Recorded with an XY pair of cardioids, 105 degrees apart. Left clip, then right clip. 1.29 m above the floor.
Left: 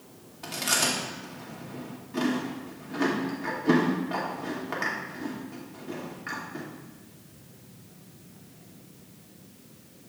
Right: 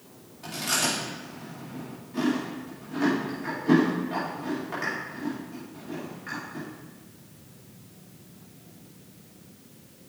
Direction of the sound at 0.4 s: 35° left.